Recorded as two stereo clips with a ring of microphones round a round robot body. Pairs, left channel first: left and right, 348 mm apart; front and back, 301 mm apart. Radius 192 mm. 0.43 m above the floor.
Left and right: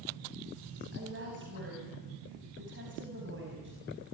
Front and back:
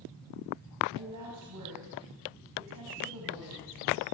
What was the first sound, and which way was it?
A woman speaking, 145° right.